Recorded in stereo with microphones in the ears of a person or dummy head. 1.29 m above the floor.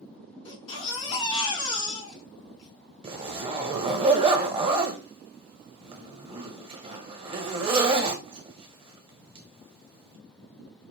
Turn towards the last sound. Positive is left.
turn(degrees=-25)  # may be behind; listen again after turning